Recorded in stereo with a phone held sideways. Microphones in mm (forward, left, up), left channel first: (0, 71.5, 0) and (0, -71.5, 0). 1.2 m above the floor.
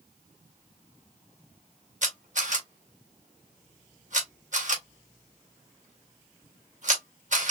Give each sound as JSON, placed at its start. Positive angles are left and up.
{"t": 2.0, "sound": "a camera shutter", "side_deg": -65, "distance_m": 1.9}